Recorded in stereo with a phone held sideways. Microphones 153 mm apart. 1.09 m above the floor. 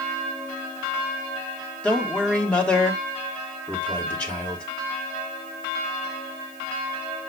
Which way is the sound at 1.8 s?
5° left (ahead or behind).